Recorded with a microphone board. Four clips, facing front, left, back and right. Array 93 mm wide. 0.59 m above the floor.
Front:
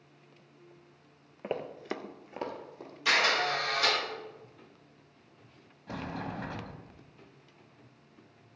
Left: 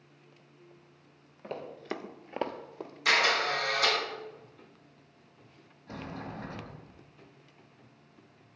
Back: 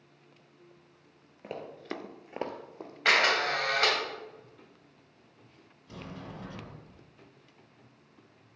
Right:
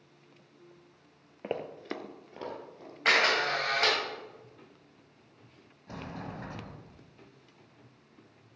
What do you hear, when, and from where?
1.4 s running footsteps: 50° right, 0.8 m; by 2.9 s 120° left, 1.4 m
3.0 s a camera shutter: 145° right, 3 m
5.9 s a sliding door: 5° right, 0.8 m